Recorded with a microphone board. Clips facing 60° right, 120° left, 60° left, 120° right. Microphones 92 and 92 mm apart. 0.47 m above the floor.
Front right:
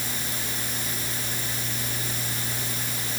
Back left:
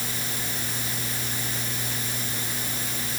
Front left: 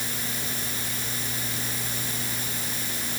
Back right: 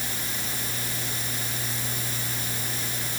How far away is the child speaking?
No child speaking in this recording.